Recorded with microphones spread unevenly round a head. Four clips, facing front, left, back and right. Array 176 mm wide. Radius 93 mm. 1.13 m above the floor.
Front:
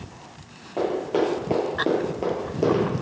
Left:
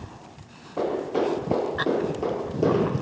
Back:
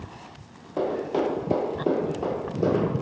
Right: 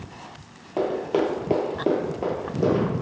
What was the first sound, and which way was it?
Running footsteps, 85° right.